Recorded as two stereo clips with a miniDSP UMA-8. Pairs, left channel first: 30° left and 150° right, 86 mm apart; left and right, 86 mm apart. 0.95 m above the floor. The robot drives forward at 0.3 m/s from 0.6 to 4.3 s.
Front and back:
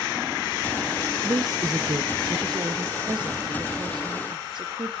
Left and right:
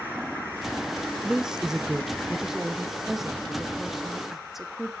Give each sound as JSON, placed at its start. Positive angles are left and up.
{"t": 1.2, "sound": "a woman speaking", "azimuth_deg": -170, "distance_m": 0.6}